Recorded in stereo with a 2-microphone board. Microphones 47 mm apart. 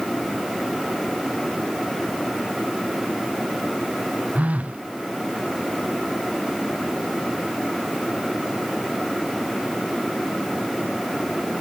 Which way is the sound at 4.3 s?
30° right (ahead or behind).